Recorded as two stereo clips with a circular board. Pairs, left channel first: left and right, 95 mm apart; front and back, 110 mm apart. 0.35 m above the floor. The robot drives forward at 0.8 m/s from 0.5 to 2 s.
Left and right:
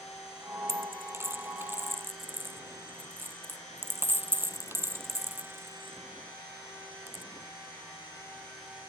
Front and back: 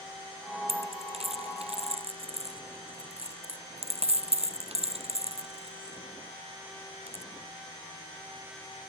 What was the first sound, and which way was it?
A dropped coin, 150° right.